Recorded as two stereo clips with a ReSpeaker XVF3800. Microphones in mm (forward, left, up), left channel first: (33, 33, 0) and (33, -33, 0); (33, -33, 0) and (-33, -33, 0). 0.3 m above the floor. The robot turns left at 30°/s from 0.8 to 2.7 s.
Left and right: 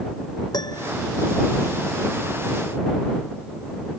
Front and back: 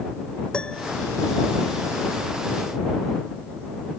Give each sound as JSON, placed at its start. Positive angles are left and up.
{"t": 0.5, "sound": "a piano", "azimuth_deg": 75}